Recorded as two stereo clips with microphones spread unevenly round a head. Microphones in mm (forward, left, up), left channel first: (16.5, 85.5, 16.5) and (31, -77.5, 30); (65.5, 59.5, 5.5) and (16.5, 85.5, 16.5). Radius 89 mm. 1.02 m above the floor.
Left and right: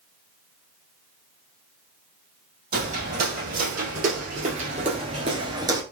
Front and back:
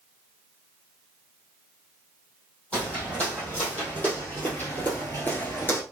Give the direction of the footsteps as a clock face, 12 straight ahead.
4 o'clock.